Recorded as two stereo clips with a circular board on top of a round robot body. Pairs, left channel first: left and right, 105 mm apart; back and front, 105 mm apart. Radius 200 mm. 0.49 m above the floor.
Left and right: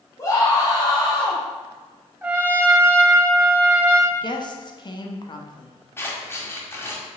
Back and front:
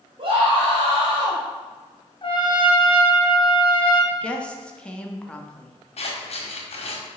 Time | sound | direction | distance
0.2 | a scream | 30° left | 3.5 m
2.2 | a trumpet | 160° right | 2.0 m
4.1 | a woman speaking | 105° left | 1.6 m
6.0 | scissors | 160° left | 2 m